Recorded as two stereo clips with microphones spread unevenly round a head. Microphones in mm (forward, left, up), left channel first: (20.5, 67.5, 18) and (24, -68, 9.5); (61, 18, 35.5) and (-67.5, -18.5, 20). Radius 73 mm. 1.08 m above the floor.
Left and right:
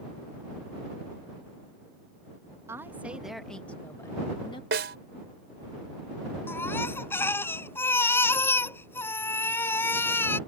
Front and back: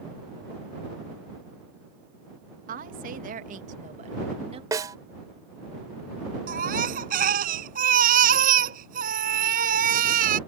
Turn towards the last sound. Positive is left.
turn(degrees=170)